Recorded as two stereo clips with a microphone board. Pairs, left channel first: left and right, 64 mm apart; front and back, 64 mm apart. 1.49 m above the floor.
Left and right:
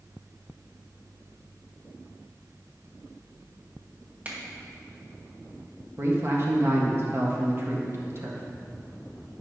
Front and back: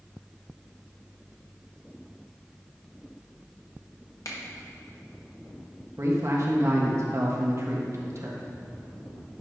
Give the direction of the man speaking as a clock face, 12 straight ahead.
5 o'clock.